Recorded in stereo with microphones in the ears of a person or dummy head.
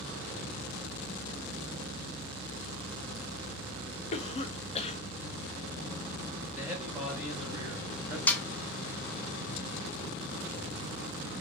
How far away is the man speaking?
About 2.5 m.